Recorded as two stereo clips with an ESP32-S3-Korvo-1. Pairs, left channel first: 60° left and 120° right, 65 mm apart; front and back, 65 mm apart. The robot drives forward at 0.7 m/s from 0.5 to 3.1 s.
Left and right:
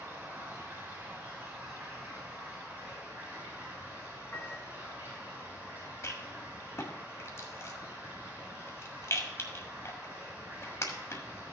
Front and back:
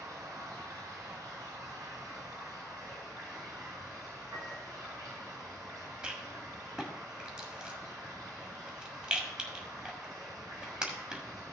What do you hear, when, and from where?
0.0 s running water: 175° right, 5 m; by 11.5 s straight behind, 6.5 m
4.3 s a piano: 130° left, 1.7 m
6.0 s a rattle: 105° left, 1.6 m